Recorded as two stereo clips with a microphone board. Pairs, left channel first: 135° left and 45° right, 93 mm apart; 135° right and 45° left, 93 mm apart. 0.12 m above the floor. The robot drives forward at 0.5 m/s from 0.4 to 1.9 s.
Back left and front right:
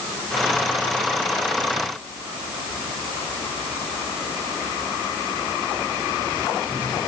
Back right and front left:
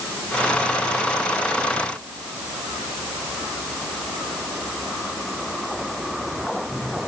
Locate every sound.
Only background noise.